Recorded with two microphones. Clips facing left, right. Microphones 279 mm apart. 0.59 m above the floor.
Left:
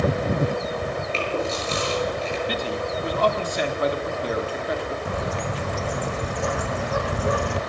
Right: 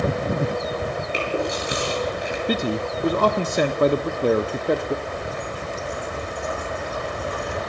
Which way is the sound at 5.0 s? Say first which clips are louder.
Left 2 dB; 80° left.